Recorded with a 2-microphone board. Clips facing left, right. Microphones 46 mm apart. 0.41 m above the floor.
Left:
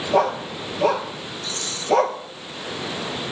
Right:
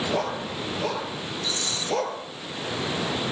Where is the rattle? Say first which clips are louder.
Right 1 dB; 45° left (ahead or behind), 2 m.